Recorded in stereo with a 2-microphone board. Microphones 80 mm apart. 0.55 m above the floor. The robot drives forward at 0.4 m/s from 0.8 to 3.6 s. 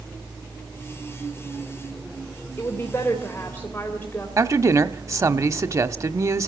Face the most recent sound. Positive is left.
turn(degrees=-40)  # may be behind; listen again after turning